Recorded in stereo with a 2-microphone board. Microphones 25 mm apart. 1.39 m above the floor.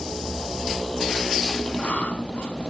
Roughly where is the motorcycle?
Left.